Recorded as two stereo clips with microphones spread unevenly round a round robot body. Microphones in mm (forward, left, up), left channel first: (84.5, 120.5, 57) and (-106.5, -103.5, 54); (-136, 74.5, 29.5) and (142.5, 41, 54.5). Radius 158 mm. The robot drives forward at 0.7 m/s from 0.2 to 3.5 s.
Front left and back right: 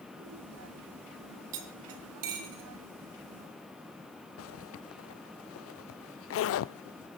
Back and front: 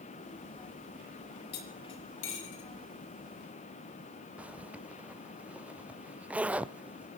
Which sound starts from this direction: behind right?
Cutlery clinking, at 1.5 s.